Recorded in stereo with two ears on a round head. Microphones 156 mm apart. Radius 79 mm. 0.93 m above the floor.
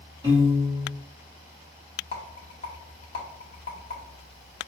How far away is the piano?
About 2.0 m.